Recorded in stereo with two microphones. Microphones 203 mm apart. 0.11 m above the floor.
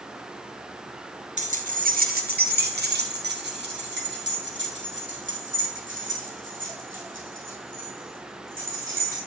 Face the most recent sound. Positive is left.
turn(degrees=-70)  # may be behind; listen again after turning